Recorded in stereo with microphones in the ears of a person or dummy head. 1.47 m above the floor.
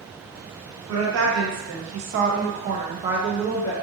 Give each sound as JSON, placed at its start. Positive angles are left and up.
{"t": 0.9, "sound": "a woman speaking", "side_deg": -75, "distance_m": 1.3}